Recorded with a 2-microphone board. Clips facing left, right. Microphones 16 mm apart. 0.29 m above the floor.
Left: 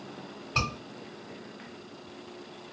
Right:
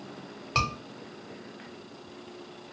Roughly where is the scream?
Right.